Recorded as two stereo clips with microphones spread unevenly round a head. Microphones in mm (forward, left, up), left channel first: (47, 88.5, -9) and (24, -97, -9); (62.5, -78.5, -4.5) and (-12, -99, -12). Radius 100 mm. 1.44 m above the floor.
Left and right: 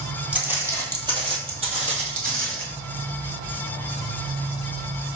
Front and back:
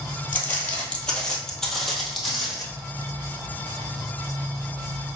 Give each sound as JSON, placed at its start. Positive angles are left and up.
{"t": 0.3, "sound": "footsteps", "azimuth_deg": -20, "distance_m": 1.7}